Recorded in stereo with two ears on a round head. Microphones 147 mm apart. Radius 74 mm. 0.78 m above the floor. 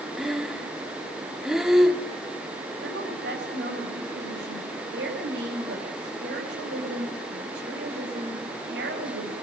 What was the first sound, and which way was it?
Breathing, 5° right (ahead or behind).